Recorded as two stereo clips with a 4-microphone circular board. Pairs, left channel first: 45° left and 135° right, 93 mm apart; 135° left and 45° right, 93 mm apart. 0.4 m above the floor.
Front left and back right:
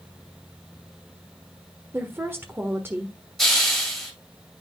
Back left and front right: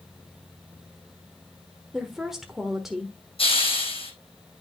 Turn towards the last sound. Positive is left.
turn(degrees=135)